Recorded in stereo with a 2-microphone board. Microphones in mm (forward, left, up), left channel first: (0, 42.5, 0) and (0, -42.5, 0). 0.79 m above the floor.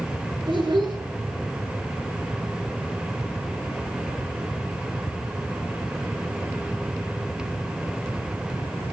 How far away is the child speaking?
About 7.5 m.